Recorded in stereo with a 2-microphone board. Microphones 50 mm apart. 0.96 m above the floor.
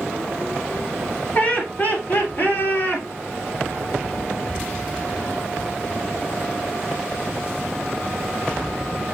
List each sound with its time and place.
1.4 s laughter: 30° left (ahead or behind), 3 m; by 3.0 s 45° left (ahead or behind), 4 m